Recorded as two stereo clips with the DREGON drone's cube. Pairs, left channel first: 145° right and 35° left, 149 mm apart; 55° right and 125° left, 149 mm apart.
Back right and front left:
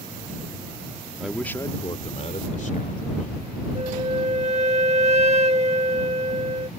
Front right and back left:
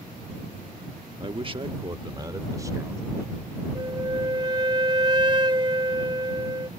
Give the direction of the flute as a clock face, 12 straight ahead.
10 o'clock.